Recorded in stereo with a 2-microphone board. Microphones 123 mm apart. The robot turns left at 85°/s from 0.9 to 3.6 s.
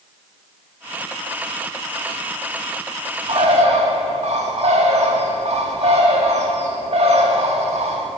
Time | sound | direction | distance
3.3 | a bird | 50° right (ahead or behind) | 1.4 m